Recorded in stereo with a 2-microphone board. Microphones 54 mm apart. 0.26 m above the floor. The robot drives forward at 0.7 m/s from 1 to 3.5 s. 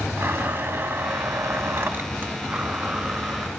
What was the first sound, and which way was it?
A blender, 45° right (ahead or behind).